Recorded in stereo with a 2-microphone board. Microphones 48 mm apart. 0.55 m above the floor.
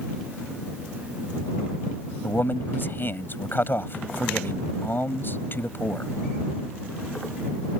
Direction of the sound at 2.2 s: 50° left (ahead or behind).